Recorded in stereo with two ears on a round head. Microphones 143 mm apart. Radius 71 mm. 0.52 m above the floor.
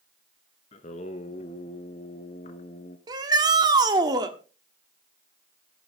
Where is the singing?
40° left (ahead or behind), 1.1 m.